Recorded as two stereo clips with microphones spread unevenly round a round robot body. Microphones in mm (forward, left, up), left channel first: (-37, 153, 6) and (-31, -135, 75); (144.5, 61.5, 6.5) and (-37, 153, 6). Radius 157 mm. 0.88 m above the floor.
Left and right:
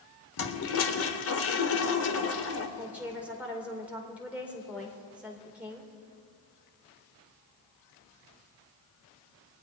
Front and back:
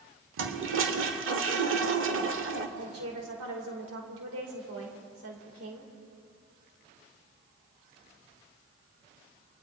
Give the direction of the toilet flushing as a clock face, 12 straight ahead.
7 o'clock.